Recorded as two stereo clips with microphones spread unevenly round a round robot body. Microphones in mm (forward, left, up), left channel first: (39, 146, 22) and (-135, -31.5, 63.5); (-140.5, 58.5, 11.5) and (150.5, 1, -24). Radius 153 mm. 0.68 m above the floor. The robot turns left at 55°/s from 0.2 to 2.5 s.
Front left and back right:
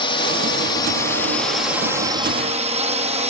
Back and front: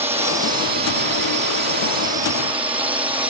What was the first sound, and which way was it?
A drone, 50° left.